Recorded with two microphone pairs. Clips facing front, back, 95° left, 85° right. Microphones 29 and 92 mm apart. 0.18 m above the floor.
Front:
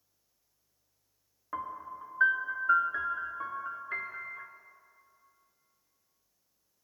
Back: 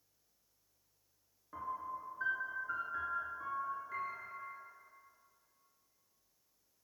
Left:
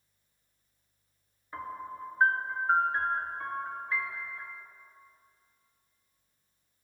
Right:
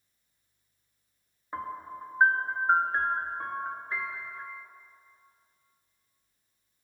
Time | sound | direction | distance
1.5 | a piano | 25° right | 0.5 m